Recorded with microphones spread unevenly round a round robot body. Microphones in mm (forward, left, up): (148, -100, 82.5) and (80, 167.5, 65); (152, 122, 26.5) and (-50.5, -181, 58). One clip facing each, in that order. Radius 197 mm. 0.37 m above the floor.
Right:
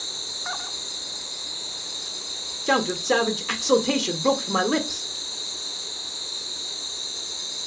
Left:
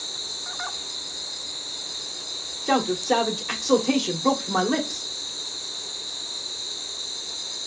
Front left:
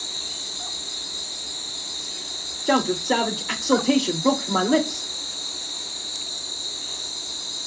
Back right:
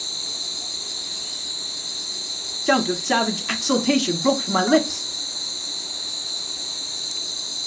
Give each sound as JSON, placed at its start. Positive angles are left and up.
{"t": 0.0, "sound": "an insect", "azimuth_deg": 180, "distance_m": 2.0}
{"t": 2.7, "sound": "a man speaking", "azimuth_deg": -140, "distance_m": 0.8}